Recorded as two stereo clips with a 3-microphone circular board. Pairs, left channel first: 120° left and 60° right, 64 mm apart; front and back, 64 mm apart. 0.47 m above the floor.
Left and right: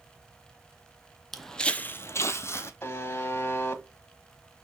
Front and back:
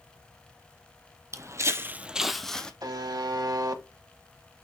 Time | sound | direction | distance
1.3 | footsteps | 150° right | 0.8 m
2.8 | a buzzer | 175° left | 1.1 m